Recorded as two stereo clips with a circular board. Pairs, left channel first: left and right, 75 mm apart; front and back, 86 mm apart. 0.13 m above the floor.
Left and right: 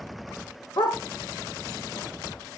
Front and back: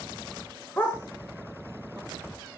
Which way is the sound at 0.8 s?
70° left.